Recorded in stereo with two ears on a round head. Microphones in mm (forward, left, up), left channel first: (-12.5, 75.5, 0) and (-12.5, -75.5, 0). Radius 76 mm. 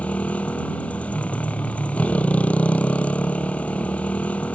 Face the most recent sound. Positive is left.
turn(degrees=10)  # may be behind; listen again after turning